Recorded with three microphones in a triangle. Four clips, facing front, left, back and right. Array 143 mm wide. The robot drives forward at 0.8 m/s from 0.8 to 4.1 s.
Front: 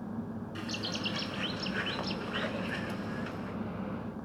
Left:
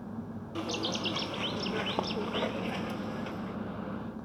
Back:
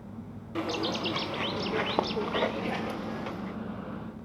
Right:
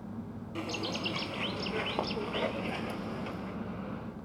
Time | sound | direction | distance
0.6 | a bird | 170° left | 1.2 m